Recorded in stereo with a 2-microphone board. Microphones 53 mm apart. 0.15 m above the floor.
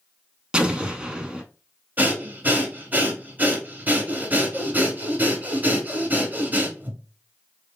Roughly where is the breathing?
Right.